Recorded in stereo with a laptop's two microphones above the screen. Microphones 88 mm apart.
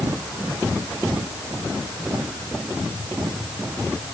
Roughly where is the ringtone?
No ringtone in this recording.